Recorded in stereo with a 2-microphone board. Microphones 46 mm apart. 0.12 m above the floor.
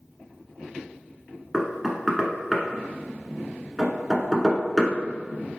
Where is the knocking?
5° right (ahead or behind), 1.0 m.